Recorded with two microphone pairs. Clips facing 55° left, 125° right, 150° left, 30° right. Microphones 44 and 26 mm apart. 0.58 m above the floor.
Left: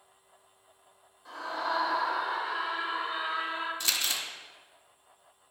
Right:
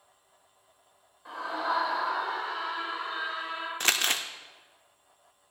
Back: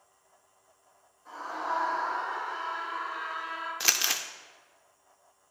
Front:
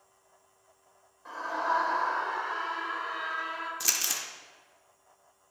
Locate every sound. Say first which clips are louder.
1.2 s a scream: right 2 dB, front 3 dB; 60° right, 2 m; by 3.7 s straight ahead, 3 m
3.8 s crumpling: right 5 dB, back 5 dB; 150° right, 0.5 m